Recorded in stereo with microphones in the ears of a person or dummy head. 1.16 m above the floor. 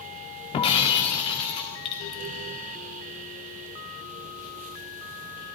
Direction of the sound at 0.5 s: 25° left (ahead or behind).